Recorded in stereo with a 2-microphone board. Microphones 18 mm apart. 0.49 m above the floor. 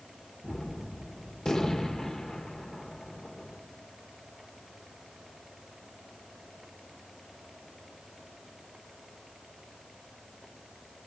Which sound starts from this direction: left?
A gunshot, at 0.4 s.